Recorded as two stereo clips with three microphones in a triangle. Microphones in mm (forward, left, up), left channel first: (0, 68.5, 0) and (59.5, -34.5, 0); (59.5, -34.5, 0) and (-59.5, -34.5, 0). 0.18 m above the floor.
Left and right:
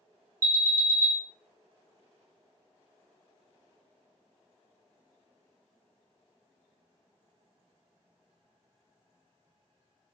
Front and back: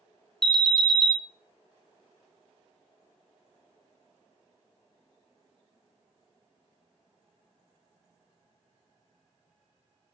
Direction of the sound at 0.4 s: 80° right.